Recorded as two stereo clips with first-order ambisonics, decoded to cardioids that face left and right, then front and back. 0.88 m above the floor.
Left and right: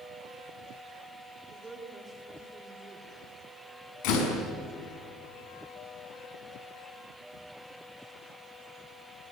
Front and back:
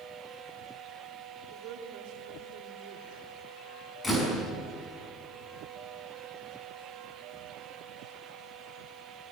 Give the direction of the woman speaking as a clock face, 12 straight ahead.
6 o'clock.